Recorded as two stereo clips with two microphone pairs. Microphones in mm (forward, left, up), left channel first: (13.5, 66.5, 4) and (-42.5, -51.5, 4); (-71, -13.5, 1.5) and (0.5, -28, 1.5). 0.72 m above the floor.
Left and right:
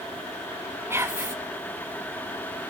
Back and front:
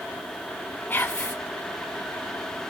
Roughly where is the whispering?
Behind.